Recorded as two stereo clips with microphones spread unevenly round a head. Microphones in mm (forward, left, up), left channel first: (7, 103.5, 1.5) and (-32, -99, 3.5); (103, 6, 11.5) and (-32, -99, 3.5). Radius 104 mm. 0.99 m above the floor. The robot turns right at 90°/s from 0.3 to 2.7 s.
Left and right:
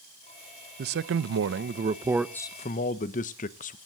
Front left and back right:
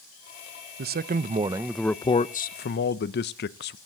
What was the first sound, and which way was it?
A man speaking, 140° right.